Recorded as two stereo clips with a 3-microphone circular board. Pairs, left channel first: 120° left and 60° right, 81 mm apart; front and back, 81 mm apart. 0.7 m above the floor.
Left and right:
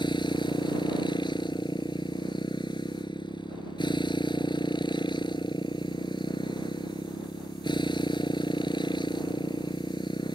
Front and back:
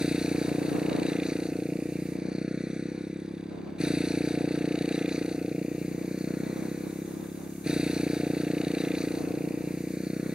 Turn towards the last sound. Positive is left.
turn(degrees=100)